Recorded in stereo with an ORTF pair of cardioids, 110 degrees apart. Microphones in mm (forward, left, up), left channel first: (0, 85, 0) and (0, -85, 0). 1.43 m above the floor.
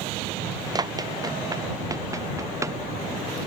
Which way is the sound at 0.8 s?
25° right.